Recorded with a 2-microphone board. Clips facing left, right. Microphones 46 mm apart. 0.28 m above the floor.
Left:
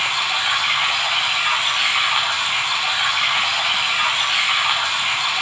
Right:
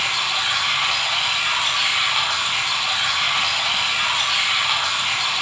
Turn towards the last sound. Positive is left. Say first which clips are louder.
# left 2 dB
turn(degrees=25)  # may be behind; listen again after turning